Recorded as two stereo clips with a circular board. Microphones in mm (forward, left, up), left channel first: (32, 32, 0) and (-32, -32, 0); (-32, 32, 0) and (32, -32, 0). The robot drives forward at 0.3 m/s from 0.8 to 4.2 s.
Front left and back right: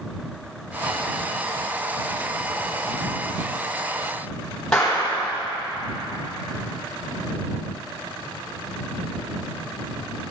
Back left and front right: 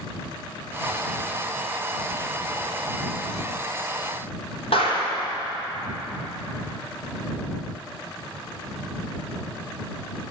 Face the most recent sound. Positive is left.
turn(degrees=130)